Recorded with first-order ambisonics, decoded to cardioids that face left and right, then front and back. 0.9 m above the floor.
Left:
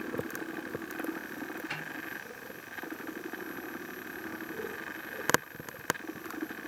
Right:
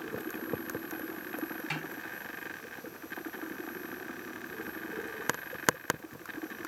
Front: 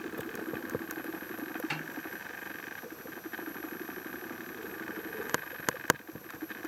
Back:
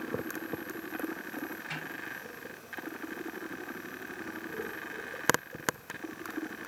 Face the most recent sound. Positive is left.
turn(degrees=-40)